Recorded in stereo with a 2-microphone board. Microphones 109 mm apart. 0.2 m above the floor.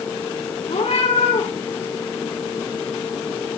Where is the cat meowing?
70° left (ahead or behind), 9.5 m.